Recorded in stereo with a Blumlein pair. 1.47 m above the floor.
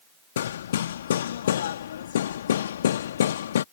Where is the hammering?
60° left.